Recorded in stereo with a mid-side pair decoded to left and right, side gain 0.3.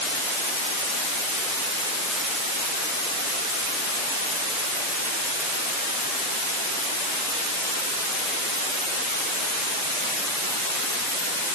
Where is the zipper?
I don't hear a zipper.